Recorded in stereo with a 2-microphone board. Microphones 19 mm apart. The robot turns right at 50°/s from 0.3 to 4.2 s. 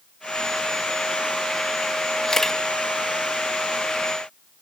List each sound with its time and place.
2.2 s a camera shutter: 25° left (ahead or behind), 1.3 m; by 2.6 s 10° left (ahead or behind), 1.3 m